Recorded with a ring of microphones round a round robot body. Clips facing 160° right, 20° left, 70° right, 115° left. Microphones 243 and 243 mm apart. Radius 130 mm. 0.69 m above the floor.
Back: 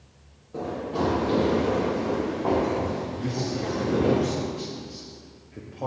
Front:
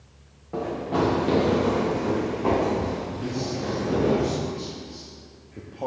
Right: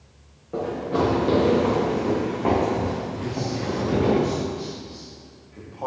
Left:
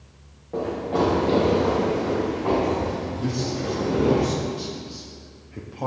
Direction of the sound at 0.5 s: 15° left.